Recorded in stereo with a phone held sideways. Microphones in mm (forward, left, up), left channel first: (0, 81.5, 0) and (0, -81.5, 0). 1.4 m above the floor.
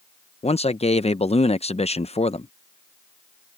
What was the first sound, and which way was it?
A man speaking, 40° left (ahead or behind).